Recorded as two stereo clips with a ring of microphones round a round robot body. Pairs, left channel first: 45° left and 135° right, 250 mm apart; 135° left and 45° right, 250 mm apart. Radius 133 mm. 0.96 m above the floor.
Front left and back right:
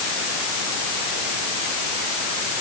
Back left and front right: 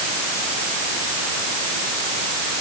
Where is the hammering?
No hammering in this recording.